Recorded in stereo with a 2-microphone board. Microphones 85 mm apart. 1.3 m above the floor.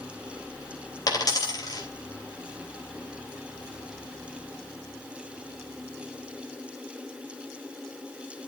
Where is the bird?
I don't hear a bird.